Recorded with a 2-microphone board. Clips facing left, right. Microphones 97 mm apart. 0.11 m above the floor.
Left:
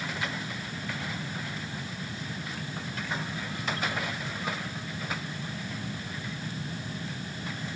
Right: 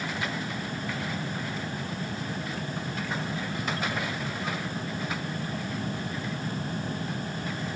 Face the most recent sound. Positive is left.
No sound to turn to.